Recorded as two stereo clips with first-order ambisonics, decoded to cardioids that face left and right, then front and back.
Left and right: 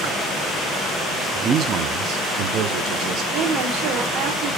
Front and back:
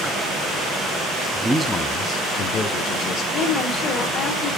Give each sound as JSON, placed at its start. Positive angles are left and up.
{"t": 1.3, "sound": "a man speaking", "azimuth_deg": -130, "distance_m": 0.5}
{"t": 3.3, "sound": "a woman speaking", "azimuth_deg": -65, "distance_m": 2.0}